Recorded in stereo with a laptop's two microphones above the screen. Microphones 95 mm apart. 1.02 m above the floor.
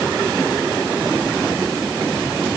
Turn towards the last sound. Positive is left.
No sound to turn to.